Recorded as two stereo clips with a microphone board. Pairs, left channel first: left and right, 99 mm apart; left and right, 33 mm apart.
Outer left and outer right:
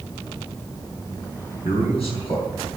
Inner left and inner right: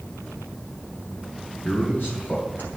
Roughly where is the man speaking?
Left.